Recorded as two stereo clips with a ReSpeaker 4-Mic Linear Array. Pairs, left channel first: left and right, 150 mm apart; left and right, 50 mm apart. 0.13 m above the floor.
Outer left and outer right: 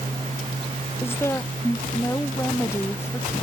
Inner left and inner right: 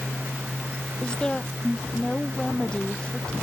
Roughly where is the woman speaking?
Centre.